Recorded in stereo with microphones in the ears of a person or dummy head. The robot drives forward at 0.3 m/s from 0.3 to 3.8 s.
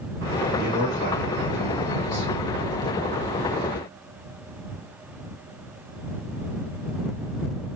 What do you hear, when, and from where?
0.6 s a man speaking: 45° left (ahead or behind), 1.7 m; by 2.3 s 35° left (ahead or behind), 2 m